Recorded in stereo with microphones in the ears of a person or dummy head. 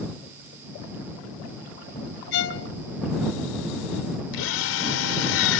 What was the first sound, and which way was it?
A violin, 65° left (ahead or behind).